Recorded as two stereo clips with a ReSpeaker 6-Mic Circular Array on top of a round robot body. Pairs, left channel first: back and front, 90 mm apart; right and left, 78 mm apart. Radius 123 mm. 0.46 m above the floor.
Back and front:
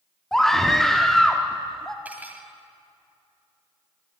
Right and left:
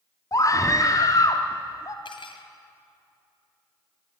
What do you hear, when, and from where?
0.3 s a scream: 95° right, 1.3 m
2.0 s cutlery clinking: 75° right, 2 m